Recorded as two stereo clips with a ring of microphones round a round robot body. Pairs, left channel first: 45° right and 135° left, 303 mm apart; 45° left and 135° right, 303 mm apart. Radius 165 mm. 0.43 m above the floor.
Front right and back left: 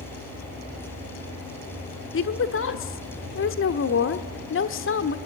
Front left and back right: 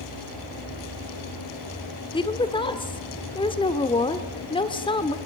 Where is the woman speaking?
20° right, 1.4 m.